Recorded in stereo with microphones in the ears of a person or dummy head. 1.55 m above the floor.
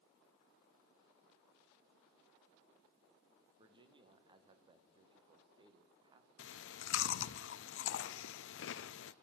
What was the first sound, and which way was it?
A man speaking, 25° right (ahead or behind).